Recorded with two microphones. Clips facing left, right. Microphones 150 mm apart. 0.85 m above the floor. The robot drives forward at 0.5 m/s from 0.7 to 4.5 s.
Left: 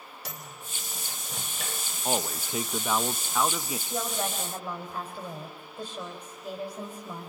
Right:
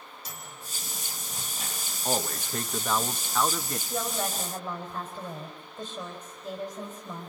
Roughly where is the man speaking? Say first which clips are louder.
Even; centre.